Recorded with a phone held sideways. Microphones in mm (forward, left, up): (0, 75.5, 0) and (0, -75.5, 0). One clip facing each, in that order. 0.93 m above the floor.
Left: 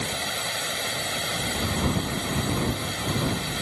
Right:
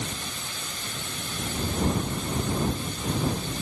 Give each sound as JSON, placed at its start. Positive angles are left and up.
{"t": 0.0, "sound": "running water", "side_deg": 85}